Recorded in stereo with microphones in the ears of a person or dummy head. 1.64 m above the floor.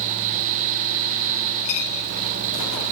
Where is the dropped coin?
40° left (ahead or behind), 6.5 m.